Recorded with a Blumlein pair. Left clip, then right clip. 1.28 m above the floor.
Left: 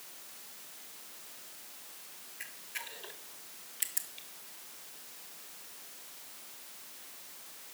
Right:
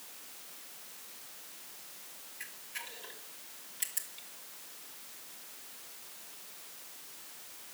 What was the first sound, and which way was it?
A camera shutter, 10° left.